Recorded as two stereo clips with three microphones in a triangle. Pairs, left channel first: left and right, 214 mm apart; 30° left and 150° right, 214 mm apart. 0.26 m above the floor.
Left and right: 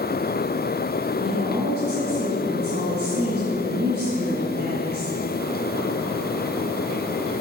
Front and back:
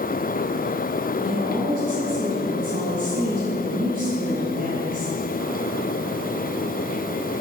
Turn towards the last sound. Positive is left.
turn(degrees=-115)